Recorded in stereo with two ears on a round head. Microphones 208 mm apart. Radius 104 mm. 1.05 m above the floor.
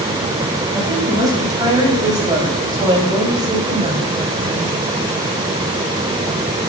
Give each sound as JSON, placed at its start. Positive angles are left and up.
{"t": 0.7, "sound": "a woman speaking", "side_deg": -15, "distance_m": 7.0}